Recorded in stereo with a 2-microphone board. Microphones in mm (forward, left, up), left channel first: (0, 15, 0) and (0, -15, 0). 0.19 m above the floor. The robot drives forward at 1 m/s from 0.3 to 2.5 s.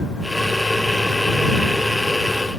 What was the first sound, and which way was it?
Only background noise.